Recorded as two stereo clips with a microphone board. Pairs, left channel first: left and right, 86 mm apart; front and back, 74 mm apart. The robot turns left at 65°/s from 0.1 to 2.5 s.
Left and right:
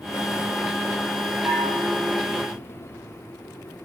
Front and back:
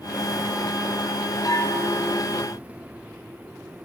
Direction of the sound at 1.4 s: 30° right.